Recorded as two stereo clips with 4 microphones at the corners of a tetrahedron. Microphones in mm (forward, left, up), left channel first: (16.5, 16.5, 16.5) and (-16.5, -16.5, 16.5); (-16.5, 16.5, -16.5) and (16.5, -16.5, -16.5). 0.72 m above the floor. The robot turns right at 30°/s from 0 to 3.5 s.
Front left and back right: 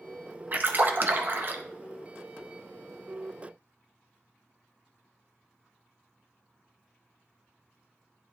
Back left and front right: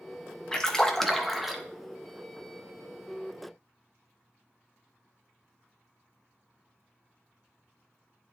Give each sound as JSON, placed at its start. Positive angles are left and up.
{"t": 0.5, "sound": "a splash", "azimuth_deg": -160, "distance_m": 0.7}